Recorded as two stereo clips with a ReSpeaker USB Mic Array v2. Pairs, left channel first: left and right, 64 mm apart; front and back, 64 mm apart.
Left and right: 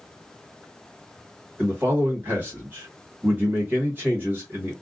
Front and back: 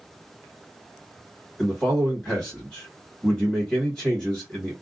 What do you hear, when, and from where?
1.6 s a man speaking: 70° right, 1.4 m